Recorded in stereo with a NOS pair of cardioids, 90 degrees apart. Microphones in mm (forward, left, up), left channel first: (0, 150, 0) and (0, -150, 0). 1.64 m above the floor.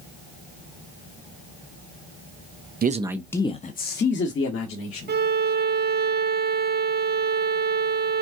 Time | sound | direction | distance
2.8 | a man speaking | 30° right | 0.6 m
5.1 | a violin | 35° right | 0.8 m